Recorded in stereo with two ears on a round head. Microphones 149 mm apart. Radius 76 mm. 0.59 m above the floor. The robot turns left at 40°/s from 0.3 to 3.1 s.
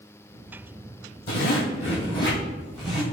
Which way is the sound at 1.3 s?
65° left.